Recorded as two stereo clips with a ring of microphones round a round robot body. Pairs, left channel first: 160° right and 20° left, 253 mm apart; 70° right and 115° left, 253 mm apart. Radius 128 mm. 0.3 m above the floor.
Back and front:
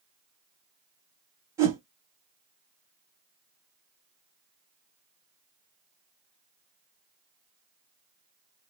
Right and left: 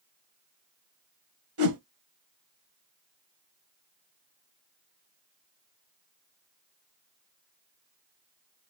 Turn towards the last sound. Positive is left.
turn(degrees=100)